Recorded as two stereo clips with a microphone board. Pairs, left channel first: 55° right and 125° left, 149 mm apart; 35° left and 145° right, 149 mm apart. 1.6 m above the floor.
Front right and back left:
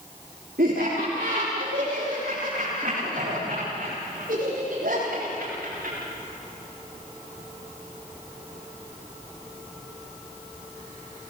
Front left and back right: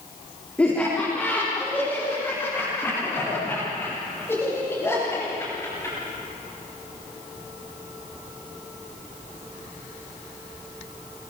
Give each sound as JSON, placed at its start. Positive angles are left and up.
{"t": 0.6, "sound": "laughter", "azimuth_deg": 115, "distance_m": 4.5}